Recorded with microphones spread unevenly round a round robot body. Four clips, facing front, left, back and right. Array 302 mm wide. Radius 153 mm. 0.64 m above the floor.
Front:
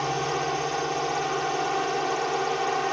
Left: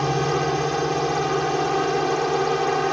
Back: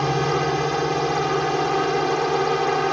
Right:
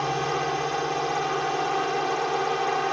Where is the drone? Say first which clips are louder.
Left 4 dB, back 5 dB; 140° left.